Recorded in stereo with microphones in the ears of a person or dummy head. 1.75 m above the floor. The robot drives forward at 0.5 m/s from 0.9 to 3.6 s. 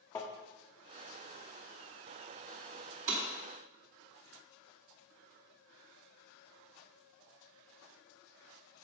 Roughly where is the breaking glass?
Right.